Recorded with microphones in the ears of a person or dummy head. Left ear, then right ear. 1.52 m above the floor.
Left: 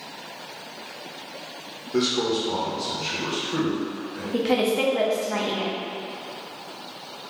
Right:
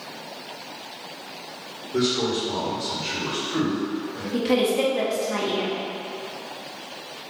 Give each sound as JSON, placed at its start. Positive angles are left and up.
{"t": 1.9, "sound": "a man speaking", "side_deg": 60, "distance_m": 1.2}
{"t": 4.3, "sound": "a woman speaking", "side_deg": 15, "distance_m": 0.7}